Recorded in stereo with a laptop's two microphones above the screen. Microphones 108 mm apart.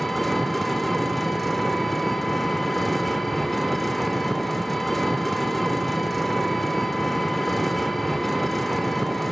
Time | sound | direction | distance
0.0 | an engine running | centre (ahead or behind) | 0.8 m